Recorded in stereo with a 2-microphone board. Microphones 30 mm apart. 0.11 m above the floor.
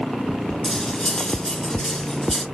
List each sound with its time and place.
0.6 s cutlery clinking: 15° left (ahead or behind), 0.7 m